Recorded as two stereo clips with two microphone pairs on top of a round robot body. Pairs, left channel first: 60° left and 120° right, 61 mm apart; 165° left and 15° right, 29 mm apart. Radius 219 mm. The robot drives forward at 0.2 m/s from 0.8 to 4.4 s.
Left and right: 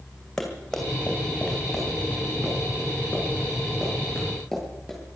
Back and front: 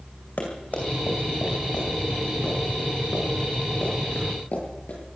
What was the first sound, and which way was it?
Running footsteps, 145° left.